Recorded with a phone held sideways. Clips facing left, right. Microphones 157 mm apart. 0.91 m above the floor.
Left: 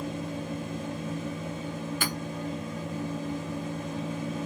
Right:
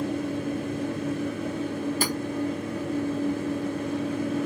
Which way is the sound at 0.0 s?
70° right (ahead or behind).